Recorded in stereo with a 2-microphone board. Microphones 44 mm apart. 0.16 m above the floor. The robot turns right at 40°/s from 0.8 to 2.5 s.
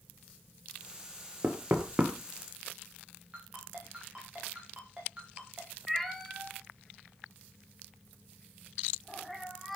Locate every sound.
1.4 s knocking: 50° right (ahead or behind), 2.5 m; by 2.1 s 25° right (ahead or behind), 2.5 m
3.3 s a ringtone: 20° right (ahead or behind), 10 m
5.9 s a cat meowing: 5° left (ahead or behind), 1.4 m